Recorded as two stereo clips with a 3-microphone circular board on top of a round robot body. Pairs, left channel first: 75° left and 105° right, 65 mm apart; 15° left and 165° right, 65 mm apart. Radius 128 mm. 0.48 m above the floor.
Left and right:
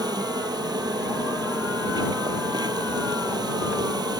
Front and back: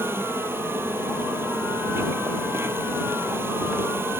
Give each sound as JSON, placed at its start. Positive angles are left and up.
{"t": 0.0, "sound": "an insect", "azimuth_deg": -110}